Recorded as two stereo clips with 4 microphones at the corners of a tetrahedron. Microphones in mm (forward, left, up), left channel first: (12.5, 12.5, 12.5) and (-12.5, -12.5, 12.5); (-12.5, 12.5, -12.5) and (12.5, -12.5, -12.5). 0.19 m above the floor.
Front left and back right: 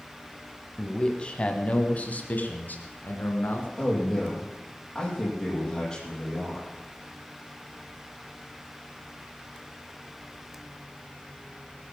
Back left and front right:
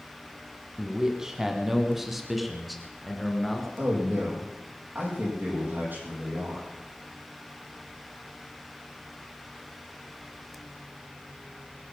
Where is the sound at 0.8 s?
5° right, 1.8 m; by 3.7 s 50° left, 3 m.